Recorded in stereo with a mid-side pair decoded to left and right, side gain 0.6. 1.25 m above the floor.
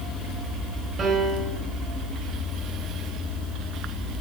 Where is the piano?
30° right, 7.5 m.